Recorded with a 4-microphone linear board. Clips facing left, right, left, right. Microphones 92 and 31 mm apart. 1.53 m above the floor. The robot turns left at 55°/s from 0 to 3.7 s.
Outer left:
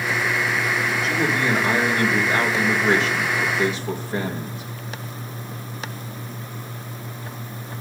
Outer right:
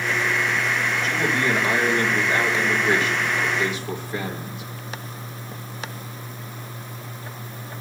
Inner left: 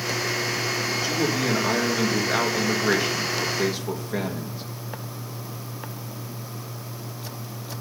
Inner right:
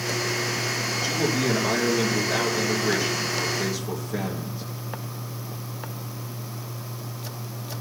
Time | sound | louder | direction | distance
1.0 | a man speaking | outer left 1 dB, inner right 1 dB | straight behind | 2.5 m